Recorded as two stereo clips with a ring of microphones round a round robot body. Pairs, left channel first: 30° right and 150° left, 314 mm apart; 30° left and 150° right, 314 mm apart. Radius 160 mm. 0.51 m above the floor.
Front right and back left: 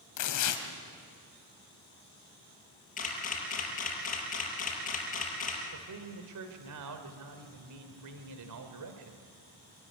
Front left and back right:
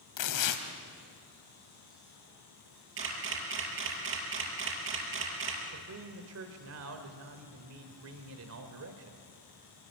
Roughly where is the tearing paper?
Ahead.